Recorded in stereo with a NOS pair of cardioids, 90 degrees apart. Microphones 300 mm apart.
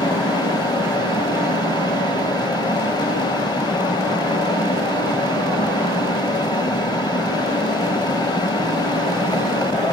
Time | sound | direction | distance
0.0 | a fan | 15° left | 1.4 m